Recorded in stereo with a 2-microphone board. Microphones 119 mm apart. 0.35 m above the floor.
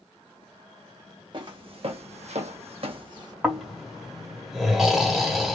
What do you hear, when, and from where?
1.3 s footsteps: 45° right (ahead or behind), 1.3 m; by 3.3 s 35° right (ahead or behind), 1.1 m
3.4 s snoring: centre (ahead or behind), 1.4 m